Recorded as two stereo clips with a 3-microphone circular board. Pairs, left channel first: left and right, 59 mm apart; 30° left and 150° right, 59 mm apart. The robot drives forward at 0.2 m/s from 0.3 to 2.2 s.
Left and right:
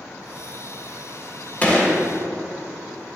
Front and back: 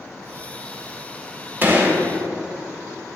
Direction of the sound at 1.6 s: 155° left.